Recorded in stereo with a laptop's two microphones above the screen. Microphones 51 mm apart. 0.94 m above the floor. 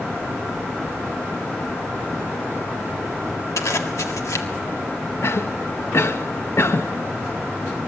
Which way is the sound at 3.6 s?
80° left.